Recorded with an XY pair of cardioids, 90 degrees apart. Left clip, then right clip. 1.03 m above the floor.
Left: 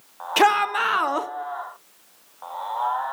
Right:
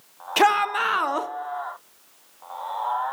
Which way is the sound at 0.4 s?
5° left.